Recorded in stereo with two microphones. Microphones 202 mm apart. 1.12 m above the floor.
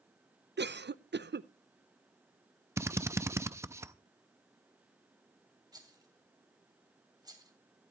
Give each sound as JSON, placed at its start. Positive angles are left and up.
{"t": 0.6, "sound": "a cough", "side_deg": -60, "distance_m": 0.5}
{"t": 2.8, "sound": "a drill", "side_deg": -15, "distance_m": 0.5}
{"t": 5.7, "sound": "a rattle", "side_deg": -20, "distance_m": 2.5}